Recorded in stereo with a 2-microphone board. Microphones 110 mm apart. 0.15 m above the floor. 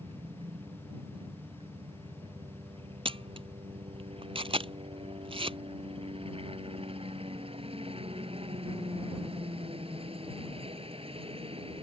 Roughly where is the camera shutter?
Right.